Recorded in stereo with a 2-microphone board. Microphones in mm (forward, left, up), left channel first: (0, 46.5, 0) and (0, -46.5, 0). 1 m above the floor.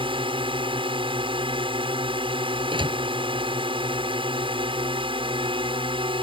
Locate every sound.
0.0 s a drone: 65° right (ahead or behind)
2.7 s a door slam: 60° right (ahead or behind)